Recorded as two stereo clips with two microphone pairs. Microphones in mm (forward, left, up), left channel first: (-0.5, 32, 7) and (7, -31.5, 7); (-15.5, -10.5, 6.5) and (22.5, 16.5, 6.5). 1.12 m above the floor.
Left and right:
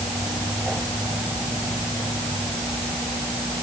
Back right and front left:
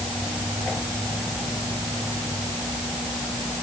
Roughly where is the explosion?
I don't hear an explosion.